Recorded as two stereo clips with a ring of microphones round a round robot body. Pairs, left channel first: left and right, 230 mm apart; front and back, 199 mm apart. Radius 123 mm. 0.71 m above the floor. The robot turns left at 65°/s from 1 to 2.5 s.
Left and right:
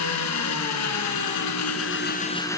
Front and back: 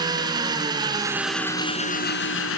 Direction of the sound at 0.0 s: 110° left.